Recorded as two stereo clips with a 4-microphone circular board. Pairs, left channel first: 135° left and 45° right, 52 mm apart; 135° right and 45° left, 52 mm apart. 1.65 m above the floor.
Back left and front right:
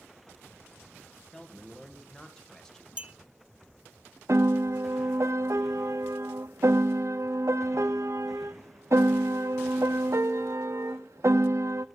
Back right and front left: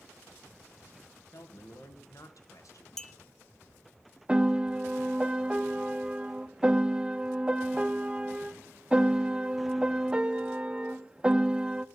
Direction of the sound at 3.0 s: 60° right.